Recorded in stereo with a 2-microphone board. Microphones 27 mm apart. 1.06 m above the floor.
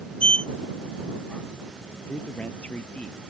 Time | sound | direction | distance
0.2 | a sliding door | 45° left (ahead or behind) | ?
2.1 | a man speaking | 60° left (ahead or behind) | ?